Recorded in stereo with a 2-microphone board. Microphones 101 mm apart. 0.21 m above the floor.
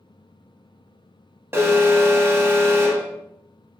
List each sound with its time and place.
1.5 s an alarm: 25° right (ahead or behind), 0.8 m